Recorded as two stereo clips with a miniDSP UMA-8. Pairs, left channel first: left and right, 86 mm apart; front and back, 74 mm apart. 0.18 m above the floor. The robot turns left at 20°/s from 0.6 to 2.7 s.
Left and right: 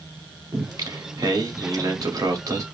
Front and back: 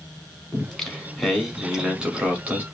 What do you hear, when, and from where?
0.5 s singing: 75° right, 0.9 m; by 2.6 s 120° right, 0.9 m